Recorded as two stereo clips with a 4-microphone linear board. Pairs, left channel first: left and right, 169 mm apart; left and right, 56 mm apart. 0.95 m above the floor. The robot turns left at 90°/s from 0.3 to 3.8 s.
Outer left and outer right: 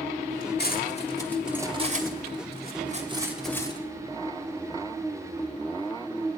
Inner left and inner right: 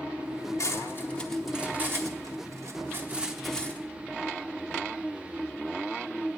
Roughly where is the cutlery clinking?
Left.